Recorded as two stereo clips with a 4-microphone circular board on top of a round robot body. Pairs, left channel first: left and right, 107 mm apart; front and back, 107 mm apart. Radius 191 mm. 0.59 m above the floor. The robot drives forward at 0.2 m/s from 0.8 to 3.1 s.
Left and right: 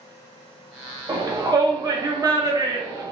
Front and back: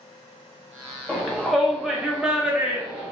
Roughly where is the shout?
Right.